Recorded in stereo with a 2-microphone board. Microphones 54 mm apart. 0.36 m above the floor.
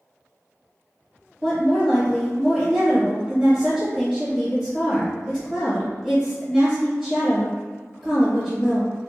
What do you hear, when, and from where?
1.4 s a woman speaking: 5° left (ahead or behind), 0.9 m